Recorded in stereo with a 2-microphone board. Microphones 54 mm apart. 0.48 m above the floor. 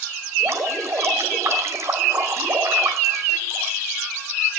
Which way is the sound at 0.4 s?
65° right (ahead or behind).